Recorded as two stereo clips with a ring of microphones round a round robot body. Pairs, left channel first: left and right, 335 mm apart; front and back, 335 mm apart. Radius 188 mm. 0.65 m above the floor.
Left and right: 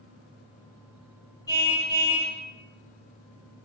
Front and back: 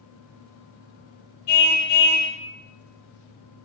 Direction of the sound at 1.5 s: 10° left.